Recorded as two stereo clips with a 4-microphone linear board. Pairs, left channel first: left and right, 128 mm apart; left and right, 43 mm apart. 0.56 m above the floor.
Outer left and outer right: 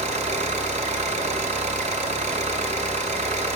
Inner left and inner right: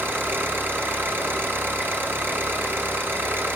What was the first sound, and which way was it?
An engine running, 60° right (ahead or behind).